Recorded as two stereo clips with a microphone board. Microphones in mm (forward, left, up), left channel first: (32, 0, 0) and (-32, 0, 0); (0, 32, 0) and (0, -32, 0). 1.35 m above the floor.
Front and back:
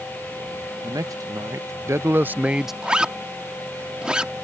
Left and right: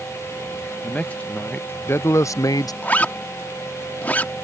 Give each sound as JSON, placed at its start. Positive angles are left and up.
{"t": 0.8, "sound": "a man speaking", "azimuth_deg": 160}
{"t": 2.8, "sound": "a zipper", "azimuth_deg": 120}